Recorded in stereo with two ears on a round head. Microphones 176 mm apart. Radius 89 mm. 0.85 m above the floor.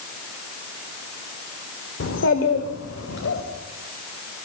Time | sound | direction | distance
2.0 | a child speaking | 70° left (ahead or behind) | 2.0 m